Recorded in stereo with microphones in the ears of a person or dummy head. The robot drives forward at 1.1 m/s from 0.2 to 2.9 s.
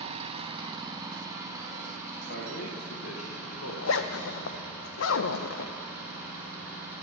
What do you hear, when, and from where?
0.0 s an engine running: 30° right (ahead or behind), 0.8 m; by 7.0 s 5° right (ahead or behind), 3.5 m
2.3 s a man speaking: 60° left (ahead or behind), 1.6 m; by 4.7 s 80° left, 1.4 m
3.7 s a zipper: 80° left, 0.6 m